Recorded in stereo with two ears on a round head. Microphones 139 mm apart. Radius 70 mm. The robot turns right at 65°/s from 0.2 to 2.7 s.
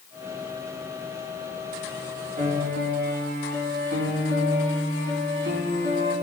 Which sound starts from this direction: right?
A piano, at 2.4 s.